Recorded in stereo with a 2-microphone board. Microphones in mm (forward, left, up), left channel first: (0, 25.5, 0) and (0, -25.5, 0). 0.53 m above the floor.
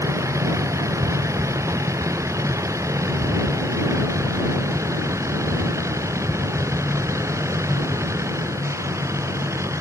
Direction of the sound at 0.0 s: 80° right.